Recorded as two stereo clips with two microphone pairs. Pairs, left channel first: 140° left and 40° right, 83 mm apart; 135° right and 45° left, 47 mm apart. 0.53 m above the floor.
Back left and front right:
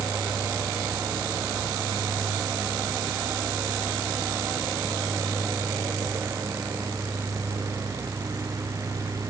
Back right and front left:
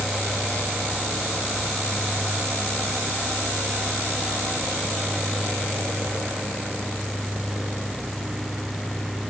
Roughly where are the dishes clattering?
I don't hear dishes clattering.